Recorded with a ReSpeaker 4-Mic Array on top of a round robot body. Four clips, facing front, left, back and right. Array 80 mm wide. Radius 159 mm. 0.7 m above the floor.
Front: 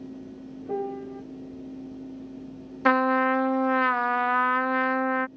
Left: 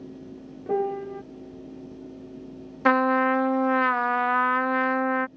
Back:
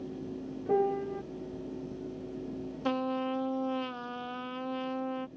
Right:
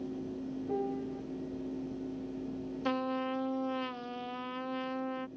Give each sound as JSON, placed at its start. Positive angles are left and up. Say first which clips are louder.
{"t": 0.7, "sound": "a piano", "louder": "left 10 dB, back 3 dB", "azimuth_deg": 100}
{"t": 2.9, "sound": "a trumpet", "louder": "left 14 dB, front 11 dB", "azimuth_deg": 55}